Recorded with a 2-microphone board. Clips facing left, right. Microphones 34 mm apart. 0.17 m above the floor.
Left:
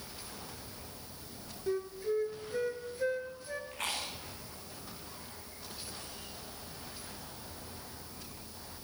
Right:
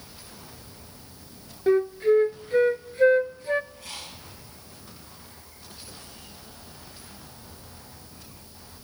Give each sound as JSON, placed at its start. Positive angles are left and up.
{"t": 1.7, "sound": "a flute", "side_deg": -55, "distance_m": 0.6}
{"t": 3.7, "sound": "chewing", "side_deg": 85, "distance_m": 7.5}